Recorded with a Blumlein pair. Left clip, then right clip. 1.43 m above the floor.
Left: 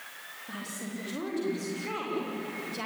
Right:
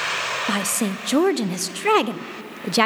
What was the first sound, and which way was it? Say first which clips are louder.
A woman speaking: right 16 dB; 40° right.